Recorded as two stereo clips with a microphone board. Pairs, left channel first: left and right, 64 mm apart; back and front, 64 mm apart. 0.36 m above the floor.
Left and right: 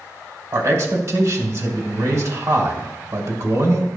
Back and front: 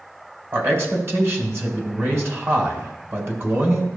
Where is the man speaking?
50° right, 2.0 m.